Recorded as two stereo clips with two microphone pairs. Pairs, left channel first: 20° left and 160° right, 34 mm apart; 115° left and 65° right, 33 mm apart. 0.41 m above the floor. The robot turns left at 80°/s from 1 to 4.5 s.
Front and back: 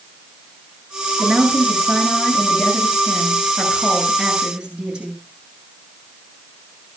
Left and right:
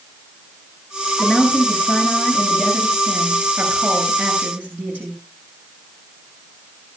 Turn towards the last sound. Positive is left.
turn(degrees=-95)